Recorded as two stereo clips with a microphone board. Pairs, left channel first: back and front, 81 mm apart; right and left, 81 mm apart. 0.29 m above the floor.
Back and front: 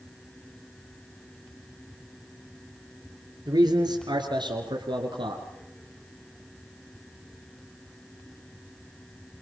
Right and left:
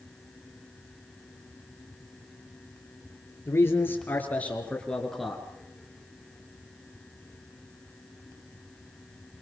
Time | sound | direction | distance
3.5 | a man speaking | 30° right | 5.5 m